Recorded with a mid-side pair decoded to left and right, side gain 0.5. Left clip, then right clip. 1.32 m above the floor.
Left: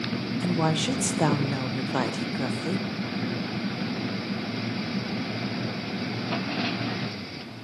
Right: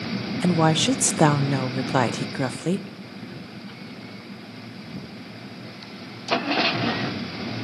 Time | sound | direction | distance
0.4 | a woman speaking | 40° right | 0.5 m